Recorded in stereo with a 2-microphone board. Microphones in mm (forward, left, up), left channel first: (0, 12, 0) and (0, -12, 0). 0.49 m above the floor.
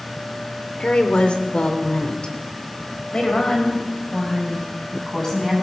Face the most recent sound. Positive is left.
turn(degrees=25)  # may be behind; listen again after turning